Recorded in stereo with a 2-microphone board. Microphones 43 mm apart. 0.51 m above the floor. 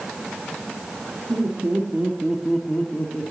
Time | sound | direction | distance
1.3 | laughter | 55° right (ahead or behind) | 1.8 m